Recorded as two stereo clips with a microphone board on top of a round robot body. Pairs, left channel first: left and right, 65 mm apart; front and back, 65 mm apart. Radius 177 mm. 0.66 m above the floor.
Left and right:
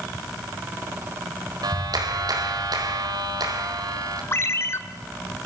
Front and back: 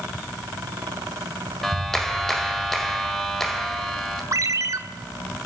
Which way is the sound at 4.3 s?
140° left.